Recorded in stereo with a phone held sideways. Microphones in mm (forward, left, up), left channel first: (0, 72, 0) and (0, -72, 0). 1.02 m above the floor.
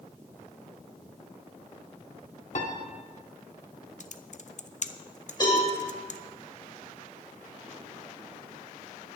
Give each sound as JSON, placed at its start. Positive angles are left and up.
{"t": 2.5, "sound": "a piano", "side_deg": 55, "distance_m": 1.6}
{"t": 4.0, "sound": "typing on a keyboard", "side_deg": 55, "distance_m": 0.6}
{"t": 5.4, "sound": "a cowbell", "side_deg": 30, "distance_m": 5.0}